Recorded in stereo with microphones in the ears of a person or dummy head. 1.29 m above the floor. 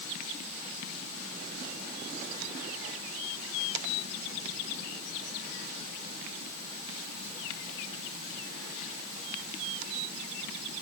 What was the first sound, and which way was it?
Only background noise.